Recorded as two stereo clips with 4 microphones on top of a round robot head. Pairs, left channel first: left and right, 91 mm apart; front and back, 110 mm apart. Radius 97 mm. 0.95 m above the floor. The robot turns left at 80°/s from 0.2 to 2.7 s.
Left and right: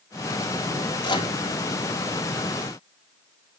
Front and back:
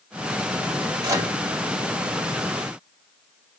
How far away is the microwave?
About 2.0 m.